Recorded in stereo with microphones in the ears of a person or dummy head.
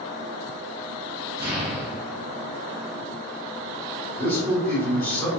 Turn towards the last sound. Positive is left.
turn(degrees=10)  # may be behind; listen again after turning